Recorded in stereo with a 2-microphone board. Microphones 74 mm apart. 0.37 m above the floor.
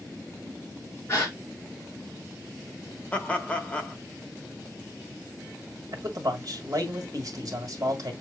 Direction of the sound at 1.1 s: 40° left (ahead or behind).